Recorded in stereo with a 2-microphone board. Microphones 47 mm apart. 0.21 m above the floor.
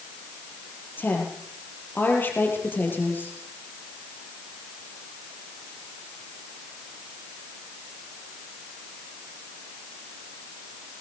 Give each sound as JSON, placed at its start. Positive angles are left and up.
{"t": 1.0, "sound": "a woman speaking", "side_deg": 45, "distance_m": 7.0}